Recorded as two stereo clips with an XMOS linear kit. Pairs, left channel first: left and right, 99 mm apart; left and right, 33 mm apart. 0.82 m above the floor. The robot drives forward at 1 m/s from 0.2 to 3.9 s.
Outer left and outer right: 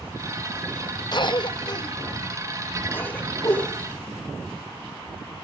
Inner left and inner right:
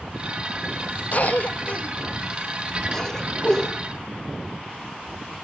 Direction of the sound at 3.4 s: 35° left (ahead or behind).